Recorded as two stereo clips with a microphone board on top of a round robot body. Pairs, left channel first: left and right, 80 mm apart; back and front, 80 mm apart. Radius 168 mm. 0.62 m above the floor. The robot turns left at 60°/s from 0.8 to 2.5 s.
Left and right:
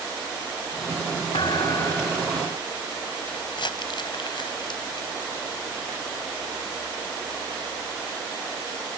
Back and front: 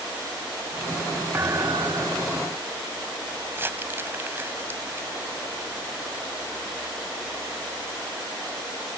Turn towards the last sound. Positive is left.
turn(degrees=65)